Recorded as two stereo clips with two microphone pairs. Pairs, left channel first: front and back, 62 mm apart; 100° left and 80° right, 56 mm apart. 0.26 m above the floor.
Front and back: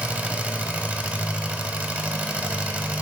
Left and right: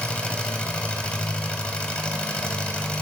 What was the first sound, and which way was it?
An engine running, 145° left.